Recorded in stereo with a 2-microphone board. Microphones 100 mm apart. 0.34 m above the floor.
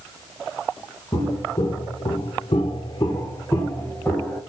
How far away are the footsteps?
About 1.3 m.